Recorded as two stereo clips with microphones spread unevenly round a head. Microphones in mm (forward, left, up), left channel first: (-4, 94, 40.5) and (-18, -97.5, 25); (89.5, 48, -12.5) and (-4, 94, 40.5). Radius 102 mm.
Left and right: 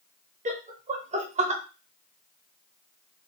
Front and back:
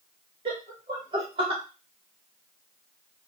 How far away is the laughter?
About 1.0 m.